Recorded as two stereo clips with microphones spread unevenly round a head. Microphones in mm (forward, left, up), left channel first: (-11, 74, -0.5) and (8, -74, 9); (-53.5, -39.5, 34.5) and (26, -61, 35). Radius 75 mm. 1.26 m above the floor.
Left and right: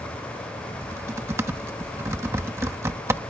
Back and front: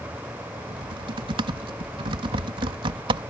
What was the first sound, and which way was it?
Typing on a keyboard, 10° right.